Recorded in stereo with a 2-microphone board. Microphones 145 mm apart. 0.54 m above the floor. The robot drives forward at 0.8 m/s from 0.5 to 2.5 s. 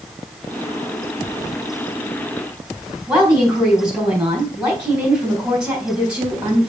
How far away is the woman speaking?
About 3.5 m.